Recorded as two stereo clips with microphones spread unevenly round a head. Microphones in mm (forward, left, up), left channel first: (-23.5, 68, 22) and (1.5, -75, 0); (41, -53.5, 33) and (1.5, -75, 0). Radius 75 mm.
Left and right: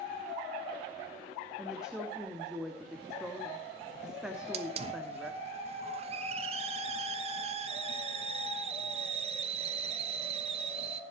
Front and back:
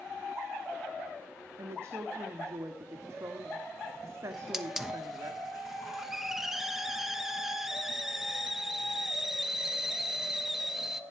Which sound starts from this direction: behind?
A woman speaking, at 1.6 s.